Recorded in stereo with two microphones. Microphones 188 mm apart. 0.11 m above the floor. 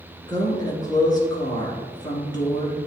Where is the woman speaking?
20° left (ahead or behind), 1.9 m.